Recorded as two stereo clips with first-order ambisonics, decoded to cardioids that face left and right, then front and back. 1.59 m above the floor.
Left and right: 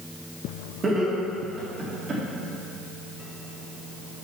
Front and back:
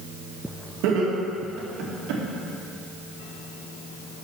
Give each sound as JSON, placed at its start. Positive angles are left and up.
{"t": 0.8, "sound": "laughter", "azimuth_deg": -165, "distance_m": 2.0}